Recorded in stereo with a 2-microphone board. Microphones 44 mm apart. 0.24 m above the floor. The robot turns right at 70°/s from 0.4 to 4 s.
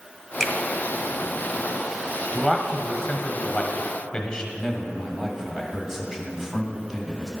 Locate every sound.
0.4 s a finger snap: 10° left (ahead or behind), 0.9 m; by 0.5 s 5° left (ahead or behind), 0.9 m
2.3 s a man speaking: centre (ahead or behind), 0.9 m; by 4.4 s 20° left (ahead or behind), 0.9 m
4.5 s a man speaking: 10° right (ahead or behind), 1.1 m